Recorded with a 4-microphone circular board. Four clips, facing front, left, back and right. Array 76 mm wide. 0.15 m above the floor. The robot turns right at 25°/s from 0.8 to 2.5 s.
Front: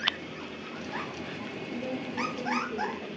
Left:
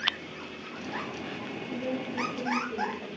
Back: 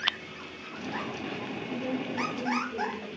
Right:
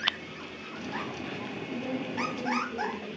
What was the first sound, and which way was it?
A woman speaking, 65° left.